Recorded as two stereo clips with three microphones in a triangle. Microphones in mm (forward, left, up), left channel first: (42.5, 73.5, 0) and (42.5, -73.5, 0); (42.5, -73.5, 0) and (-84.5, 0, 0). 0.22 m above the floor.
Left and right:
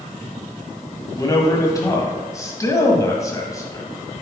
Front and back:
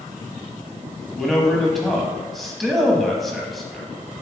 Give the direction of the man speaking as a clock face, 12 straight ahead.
10 o'clock.